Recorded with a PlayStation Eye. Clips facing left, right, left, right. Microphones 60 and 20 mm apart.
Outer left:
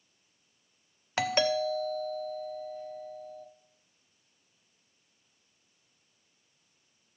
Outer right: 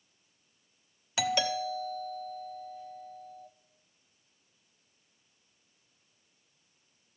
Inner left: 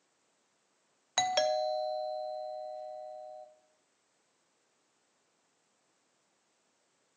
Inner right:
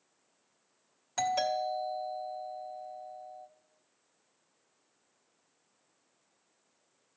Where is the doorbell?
45° left (ahead or behind), 1.0 m.